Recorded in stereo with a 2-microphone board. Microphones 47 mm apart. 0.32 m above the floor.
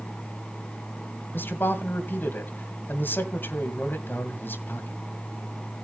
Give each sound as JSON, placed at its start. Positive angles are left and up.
{"t": 1.3, "sound": "a man speaking", "side_deg": 55, "distance_m": 2.0}